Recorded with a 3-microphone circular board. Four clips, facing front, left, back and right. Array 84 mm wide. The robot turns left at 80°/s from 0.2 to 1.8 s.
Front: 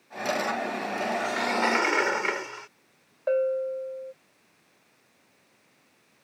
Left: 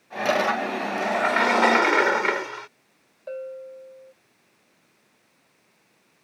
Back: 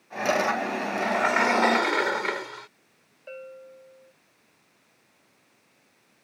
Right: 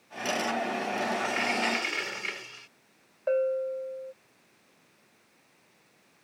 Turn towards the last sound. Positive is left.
turn(degrees=-25)